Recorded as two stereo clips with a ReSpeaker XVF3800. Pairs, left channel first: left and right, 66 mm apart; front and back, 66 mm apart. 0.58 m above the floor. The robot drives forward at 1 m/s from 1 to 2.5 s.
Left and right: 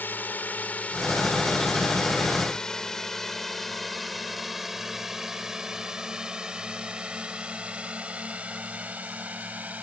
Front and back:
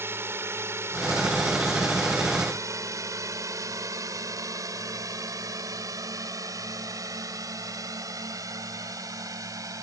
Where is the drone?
140° left; by 9.8 s 155° right.